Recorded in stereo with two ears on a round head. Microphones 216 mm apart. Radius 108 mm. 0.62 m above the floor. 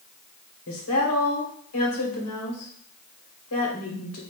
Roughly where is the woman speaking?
Left.